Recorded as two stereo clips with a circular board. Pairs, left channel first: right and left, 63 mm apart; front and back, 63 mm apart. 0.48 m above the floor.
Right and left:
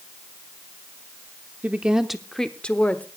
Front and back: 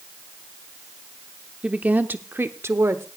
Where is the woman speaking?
125° left, 0.7 m; by 3.0 s 150° right, 1.1 m.